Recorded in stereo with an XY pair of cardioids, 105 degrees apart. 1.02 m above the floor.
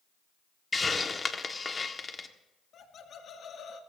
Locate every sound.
0.7 s a hiss: 25° left, 1.4 m
2.7 s laughter: 50° left, 2 m